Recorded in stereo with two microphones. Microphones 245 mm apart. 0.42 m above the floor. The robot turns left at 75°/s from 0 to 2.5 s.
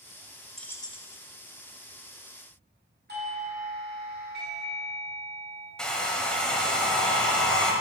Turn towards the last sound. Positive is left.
turn(degrees=5)  # may be behind; listen again after turning